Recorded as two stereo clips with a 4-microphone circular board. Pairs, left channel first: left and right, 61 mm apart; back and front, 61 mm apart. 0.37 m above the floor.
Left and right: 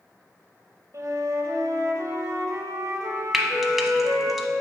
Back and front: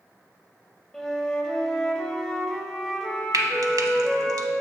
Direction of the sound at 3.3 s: Straight ahead.